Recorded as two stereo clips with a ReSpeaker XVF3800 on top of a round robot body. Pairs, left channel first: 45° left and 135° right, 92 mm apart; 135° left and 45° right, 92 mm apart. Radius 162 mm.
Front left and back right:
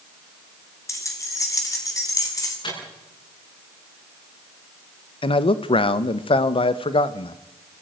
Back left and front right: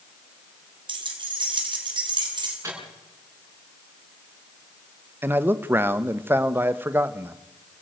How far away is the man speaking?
About 1.1 m.